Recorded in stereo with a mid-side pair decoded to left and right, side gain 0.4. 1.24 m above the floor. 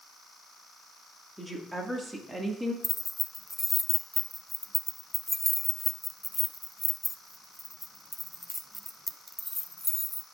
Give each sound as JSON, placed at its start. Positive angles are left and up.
{"t": 1.4, "sound": "a woman speaking", "azimuth_deg": -5, "distance_m": 2.0}
{"t": 2.8, "sound": "keys jangling", "azimuth_deg": 5, "distance_m": 0.6}